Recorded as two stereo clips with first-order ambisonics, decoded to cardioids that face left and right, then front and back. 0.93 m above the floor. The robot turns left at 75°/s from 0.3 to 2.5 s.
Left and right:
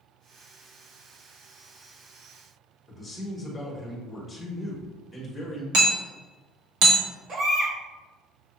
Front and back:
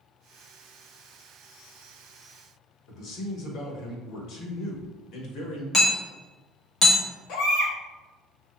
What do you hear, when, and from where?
2.9 s a man speaking: straight ahead, 1.1 m
5.7 s hammering: 70° right, 1.0 m
7.3 s a baby crying: 40° right, 1.0 m